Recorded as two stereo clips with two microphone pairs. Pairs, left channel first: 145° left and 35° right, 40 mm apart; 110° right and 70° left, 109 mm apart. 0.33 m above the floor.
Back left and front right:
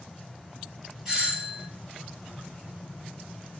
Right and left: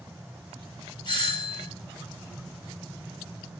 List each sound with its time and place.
1.1 s a doorbell: 110° right, 2.5 m